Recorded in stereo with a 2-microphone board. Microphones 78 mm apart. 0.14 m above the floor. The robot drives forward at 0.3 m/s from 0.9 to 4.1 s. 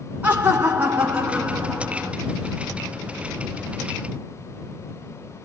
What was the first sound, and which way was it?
Laughter, 20° right (ahead or behind).